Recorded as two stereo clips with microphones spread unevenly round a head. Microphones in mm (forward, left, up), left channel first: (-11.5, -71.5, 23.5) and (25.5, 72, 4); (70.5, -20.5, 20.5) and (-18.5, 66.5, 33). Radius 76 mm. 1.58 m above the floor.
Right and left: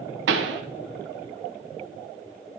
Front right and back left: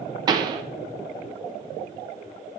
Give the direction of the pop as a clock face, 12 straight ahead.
9 o'clock.